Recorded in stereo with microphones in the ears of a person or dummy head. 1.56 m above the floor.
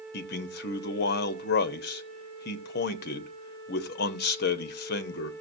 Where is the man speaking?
50° left (ahead or behind), 0.8 m.